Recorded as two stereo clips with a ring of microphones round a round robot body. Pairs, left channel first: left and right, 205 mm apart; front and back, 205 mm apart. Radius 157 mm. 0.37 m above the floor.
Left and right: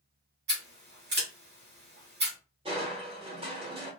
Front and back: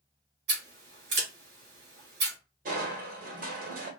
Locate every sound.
0.5 s scissors: 135° right, 1.2 m
2.6 s crushing: 150° right, 0.9 m